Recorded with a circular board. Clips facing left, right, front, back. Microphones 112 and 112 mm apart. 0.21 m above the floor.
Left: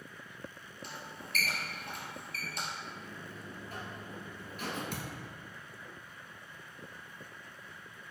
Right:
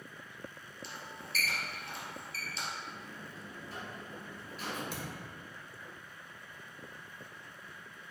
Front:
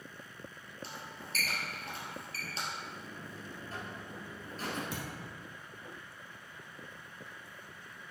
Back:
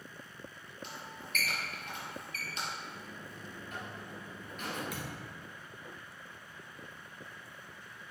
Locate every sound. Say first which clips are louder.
0.8 s a squeak: left 1 dB, even; 55° left, 2 m
2.8 s a buzzer: left 1 dB, front 1 dB; 55° left, 2.5 m
4.9 s a thud: left 1 dB, front 1 dB; 60° left, 1.8 m